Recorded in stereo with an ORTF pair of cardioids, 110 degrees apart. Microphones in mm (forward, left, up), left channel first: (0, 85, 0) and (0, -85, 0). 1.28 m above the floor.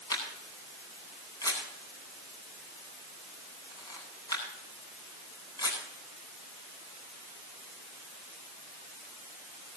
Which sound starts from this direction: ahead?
A camera shutter, at 0.1 s.